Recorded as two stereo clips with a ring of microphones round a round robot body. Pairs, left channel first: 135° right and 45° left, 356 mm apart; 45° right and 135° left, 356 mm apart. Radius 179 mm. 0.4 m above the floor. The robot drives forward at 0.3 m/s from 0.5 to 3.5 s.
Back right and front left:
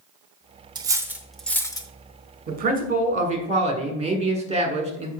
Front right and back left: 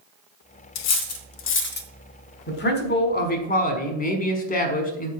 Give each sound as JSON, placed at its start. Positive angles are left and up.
{"t": 0.8, "sound": "cutlery clinking", "azimuth_deg": -30, "distance_m": 0.7}
{"t": 2.5, "sound": "a man speaking", "azimuth_deg": -5, "distance_m": 1.5}